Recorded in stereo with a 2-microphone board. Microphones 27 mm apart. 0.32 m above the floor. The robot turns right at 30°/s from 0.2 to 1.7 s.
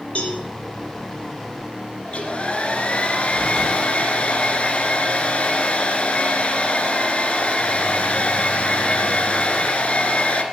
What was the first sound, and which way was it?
A cowbell, 50° left (ahead or behind).